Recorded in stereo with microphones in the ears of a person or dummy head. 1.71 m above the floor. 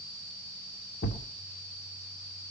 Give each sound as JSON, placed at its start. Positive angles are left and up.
{"t": 1.0, "sound": "a thud", "side_deg": 50, "distance_m": 1.9}